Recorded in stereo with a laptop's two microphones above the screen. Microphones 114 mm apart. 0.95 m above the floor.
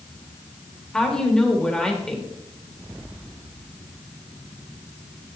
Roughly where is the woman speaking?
Centre.